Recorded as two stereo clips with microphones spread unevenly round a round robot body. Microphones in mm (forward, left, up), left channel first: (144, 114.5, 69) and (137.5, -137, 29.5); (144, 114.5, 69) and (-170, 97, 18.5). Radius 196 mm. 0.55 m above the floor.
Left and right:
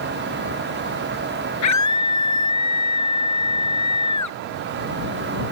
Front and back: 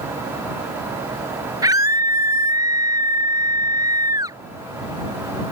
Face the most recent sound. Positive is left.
turn(degrees=105)